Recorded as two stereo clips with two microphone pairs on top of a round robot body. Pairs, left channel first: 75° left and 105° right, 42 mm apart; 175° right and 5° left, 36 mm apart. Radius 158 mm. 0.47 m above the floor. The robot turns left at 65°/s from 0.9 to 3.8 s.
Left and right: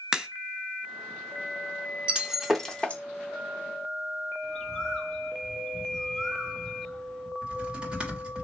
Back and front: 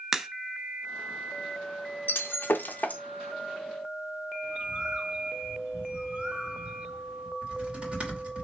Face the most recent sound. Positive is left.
turn(degrees=-45)